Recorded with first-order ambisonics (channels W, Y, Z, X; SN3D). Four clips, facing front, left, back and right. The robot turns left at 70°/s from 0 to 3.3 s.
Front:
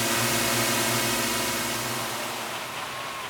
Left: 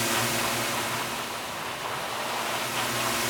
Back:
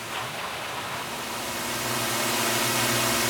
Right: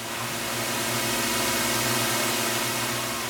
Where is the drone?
35° left; by 3.3 s 165° left.